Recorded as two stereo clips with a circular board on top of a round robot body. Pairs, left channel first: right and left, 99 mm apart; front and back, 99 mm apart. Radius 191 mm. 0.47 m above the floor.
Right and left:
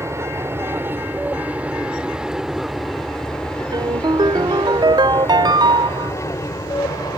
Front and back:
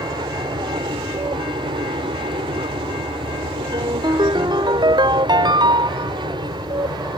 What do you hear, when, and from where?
0.0 s an aircraft: 145° left; by 7.2 s 140° right
3.7 s a ringtone: 135° left